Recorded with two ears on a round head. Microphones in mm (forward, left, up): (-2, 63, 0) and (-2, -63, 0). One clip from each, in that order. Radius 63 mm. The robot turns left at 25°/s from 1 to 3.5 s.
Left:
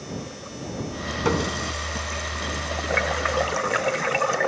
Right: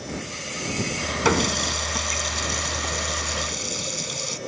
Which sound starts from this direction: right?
A running tap, at 1.2 s.